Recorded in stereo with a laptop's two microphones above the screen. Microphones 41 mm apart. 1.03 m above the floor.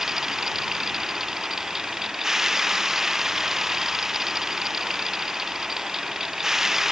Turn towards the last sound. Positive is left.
turn(degrees=-10)  # may be behind; listen again after turning